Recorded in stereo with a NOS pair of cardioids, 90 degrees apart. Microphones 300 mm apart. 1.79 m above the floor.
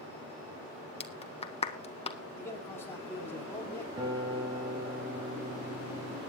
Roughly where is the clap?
Ahead.